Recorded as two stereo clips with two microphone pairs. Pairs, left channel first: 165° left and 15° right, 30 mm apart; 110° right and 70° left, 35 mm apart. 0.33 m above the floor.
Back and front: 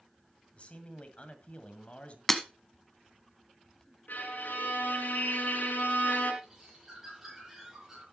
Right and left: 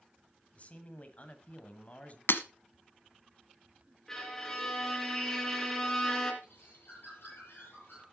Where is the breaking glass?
110° right, 0.9 m.